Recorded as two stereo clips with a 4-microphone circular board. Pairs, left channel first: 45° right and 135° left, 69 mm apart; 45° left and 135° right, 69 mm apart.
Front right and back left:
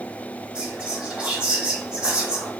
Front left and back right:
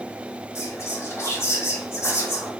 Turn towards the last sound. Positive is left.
turn(degrees=65)